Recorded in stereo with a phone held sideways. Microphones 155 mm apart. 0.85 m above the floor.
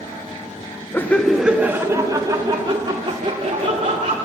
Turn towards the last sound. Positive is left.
turn(degrees=-45)  # may be behind; listen again after turning